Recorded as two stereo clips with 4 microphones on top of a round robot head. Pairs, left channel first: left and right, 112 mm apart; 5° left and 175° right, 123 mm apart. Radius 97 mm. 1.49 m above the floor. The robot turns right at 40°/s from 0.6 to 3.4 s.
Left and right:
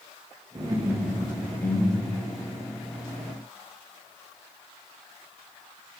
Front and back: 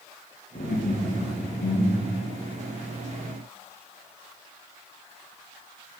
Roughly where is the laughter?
Ahead right.